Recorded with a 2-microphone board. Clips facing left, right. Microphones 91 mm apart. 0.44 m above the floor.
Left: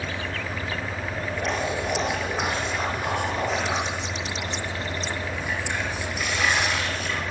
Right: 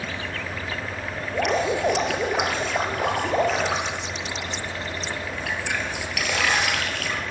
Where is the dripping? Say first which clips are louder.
Right 6 dB; 80° right, 5.5 m.